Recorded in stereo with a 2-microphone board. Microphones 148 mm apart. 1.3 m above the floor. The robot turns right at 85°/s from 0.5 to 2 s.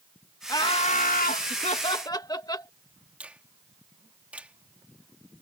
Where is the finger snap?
10° right (ahead or behind).